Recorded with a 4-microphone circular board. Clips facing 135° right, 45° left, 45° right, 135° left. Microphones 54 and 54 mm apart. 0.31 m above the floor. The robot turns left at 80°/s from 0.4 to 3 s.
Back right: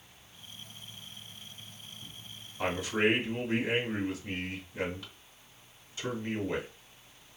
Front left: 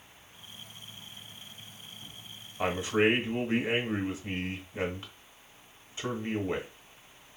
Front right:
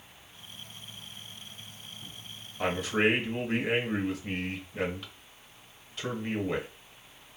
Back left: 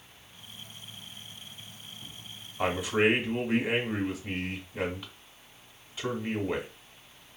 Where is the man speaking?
85° left, 1.0 m; by 6.7 s 55° left, 1.0 m.